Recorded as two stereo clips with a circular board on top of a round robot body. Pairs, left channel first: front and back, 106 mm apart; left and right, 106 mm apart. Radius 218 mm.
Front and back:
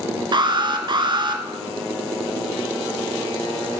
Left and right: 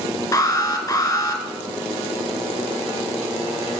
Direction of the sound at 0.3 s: 150° left.